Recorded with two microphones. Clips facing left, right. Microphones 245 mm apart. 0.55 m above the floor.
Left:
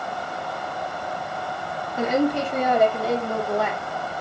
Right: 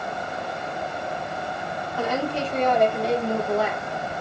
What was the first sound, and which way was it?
A woman speaking, 20° left (ahead or behind).